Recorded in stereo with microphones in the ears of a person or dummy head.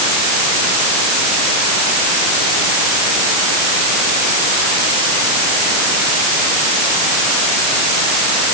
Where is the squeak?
I don't hear a squeak.